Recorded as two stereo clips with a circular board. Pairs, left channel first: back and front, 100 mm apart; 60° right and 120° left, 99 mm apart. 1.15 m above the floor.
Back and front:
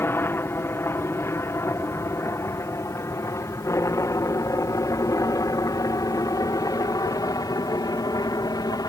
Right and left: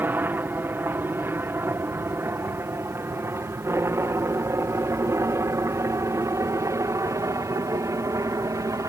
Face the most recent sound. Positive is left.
turn(degrees=160)